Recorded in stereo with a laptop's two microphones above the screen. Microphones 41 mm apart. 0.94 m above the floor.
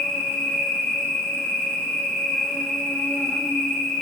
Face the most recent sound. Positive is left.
turn(degrees=85)